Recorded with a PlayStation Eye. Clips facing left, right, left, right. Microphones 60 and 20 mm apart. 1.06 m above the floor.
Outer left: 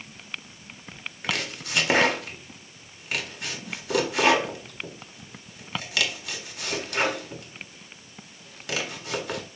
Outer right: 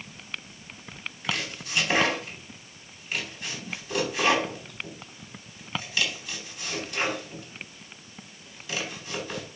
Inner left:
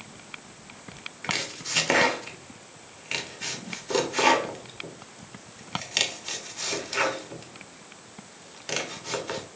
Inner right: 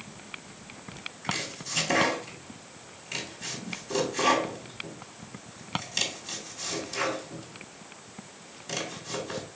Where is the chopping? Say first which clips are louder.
Outer left 2 dB, inner left 3 dB; 70° left (ahead or behind), 1.5 m.